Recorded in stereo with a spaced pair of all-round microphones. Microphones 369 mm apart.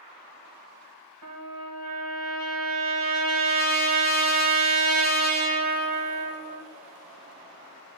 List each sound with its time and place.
1.2 s a trumpet: 65° right (ahead or behind), 1.7 m